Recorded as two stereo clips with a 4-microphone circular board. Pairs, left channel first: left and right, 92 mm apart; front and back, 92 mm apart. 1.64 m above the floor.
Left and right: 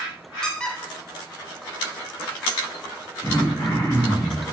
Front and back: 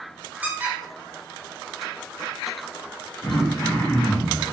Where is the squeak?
155° left, 0.5 m.